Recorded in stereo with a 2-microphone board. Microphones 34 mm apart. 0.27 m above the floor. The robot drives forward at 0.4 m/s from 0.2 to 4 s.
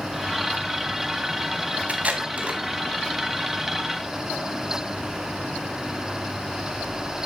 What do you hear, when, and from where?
1.9 s tape being pulled: 45° right (ahead or behind), 2 m; by 2.6 s 40° right (ahead or behind), 2 m